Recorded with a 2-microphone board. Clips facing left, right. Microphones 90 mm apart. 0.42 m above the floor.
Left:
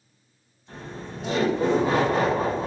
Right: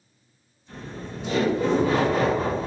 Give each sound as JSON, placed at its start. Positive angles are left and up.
{"t": 0.7, "sound": "laughter", "side_deg": 35, "distance_m": 1.6}